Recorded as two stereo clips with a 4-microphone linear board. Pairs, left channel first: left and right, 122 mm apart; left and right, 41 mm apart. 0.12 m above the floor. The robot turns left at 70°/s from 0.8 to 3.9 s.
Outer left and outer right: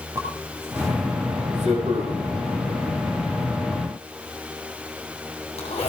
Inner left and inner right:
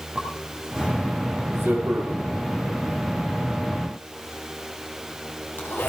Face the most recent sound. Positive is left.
turn(degrees=65)  # may be behind; listen again after turning